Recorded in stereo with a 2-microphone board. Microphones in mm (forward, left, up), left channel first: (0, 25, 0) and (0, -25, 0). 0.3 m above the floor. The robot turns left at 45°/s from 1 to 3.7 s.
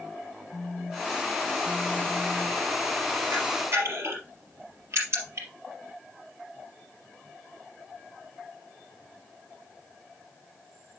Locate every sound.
0.5 s a phone buzzing: 55° left, 3 m; by 2.7 s 20° right, 3 m
3.3 s a camera shutter: 75° right (ahead or behind), 3.5 m; by 5.5 s 60° right (ahead or behind), 3.5 m